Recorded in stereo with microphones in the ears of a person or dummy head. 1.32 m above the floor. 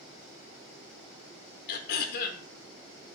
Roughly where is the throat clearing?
Left.